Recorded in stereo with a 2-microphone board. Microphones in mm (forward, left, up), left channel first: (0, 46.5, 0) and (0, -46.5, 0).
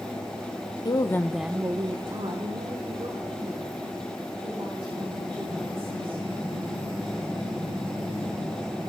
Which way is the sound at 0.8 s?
45° left (ahead or behind).